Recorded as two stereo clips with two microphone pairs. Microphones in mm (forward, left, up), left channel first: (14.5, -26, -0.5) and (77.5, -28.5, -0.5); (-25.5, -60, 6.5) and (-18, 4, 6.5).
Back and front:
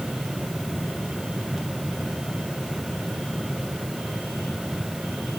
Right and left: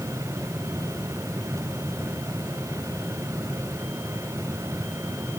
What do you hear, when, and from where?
Only background noise.